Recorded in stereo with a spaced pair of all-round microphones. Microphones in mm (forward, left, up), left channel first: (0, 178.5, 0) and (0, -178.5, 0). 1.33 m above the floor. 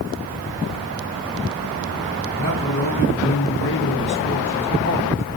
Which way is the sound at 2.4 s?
35° left (ahead or behind).